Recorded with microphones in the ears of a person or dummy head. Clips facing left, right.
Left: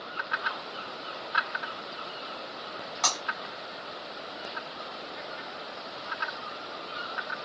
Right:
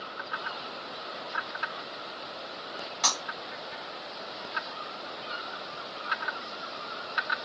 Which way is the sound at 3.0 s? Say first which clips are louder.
Left 1 dB; 10° right (ahead or behind).